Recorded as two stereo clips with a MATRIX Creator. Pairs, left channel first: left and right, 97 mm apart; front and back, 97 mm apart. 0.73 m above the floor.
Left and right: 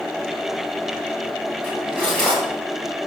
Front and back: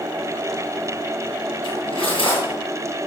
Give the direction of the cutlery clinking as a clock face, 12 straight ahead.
1 o'clock.